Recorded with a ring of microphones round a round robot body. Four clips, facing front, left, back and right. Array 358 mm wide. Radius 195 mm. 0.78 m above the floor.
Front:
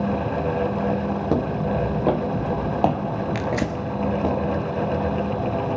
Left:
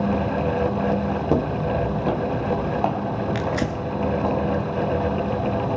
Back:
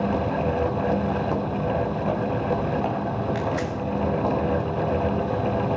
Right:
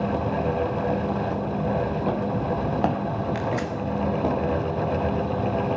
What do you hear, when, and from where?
1.3 s footsteps: 60° left, 1.3 m; by 4.3 s 45° right, 3 m
3.4 s tearing paper: 40° left, 1.6 m